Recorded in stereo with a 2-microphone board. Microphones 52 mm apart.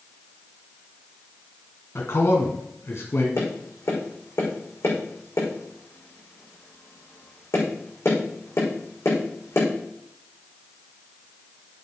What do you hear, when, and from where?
1.9 s a man speaking: 50° left (ahead or behind), 2.0 m
3.4 s tapping: 55° left (ahead or behind), 6 m